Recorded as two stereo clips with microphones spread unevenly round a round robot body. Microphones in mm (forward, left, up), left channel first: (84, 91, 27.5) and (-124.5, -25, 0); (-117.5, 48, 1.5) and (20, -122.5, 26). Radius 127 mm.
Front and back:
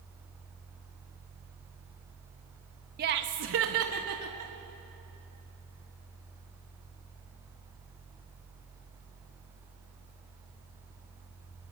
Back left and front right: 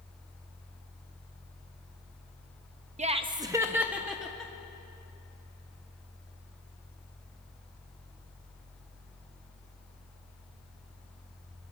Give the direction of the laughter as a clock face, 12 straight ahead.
4 o'clock.